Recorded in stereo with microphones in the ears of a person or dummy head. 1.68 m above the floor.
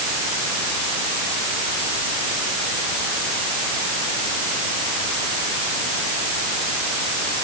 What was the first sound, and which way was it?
Only background noise.